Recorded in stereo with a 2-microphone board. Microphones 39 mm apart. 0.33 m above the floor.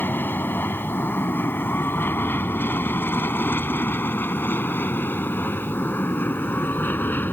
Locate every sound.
0.0 s an aircraft: 60° left (ahead or behind); by 7.3 s 55° left (ahead or behind)